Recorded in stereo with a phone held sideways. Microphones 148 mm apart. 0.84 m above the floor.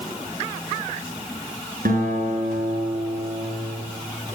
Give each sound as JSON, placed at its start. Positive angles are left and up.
{"t": 1.9, "sound": "a guitar", "side_deg": -90, "distance_m": 6.0}